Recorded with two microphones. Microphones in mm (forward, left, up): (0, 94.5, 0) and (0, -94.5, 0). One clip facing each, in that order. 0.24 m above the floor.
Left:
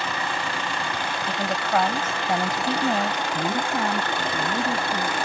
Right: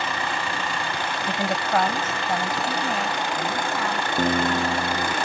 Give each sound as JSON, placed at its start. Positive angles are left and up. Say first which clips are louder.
{"t": 1.3, "sound": "a woman speaking", "louder": "right 1 dB", "side_deg": -15}
{"t": 4.2, "sound": "a guitar", "louder": "right 4 dB", "side_deg": -50}